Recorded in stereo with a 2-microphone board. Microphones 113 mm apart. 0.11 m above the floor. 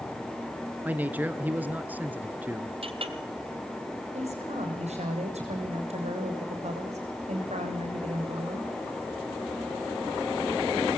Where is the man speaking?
15° right (ahead or behind), 1.7 m.